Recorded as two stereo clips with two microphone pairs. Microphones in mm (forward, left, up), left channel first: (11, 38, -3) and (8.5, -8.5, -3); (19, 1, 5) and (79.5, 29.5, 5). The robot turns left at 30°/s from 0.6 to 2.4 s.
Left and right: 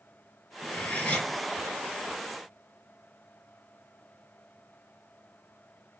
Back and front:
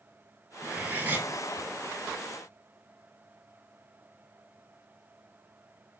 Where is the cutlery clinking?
70° left, 0.9 m; by 1.3 s 50° left, 0.9 m.